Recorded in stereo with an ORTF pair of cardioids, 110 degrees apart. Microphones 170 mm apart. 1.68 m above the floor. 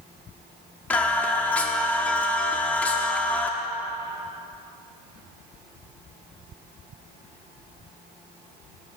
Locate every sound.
0.9 s singing: 10° left, 0.7 m